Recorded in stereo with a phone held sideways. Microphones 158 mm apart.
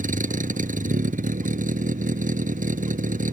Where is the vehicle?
55° right (ahead or behind).